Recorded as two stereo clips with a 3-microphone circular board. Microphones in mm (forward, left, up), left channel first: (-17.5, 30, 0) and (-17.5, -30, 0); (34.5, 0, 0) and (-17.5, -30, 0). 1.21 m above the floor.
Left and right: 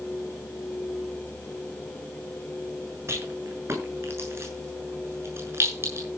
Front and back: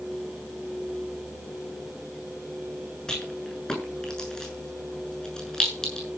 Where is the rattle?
50° right, 7.5 m.